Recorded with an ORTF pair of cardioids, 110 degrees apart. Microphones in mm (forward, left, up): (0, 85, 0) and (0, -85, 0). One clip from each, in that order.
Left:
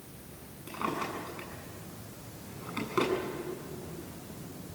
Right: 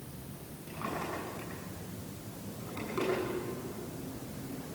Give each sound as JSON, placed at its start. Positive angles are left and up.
{"t": 0.7, "sound": "a drawer", "azimuth_deg": 45, "distance_m": 7.5}